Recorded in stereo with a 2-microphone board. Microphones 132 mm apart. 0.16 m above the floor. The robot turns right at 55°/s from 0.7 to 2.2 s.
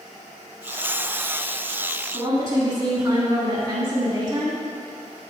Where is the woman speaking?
25° right (ahead or behind), 1.3 m.